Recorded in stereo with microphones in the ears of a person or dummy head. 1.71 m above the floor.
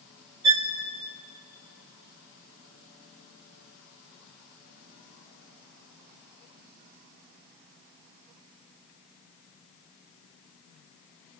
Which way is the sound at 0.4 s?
20° right (ahead or behind).